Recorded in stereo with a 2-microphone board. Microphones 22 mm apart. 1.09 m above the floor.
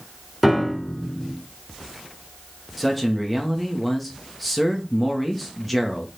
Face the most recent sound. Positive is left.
turn(degrees=0)  # may be behind; listen again after turning